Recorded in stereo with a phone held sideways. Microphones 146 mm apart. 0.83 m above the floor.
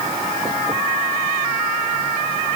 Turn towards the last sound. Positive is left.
No sound to turn to.